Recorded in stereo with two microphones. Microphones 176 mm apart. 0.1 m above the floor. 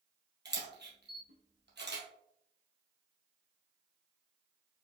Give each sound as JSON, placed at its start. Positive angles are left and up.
{"t": 0.5, "sound": "a camera shutter", "side_deg": -65, "distance_m": 1.7}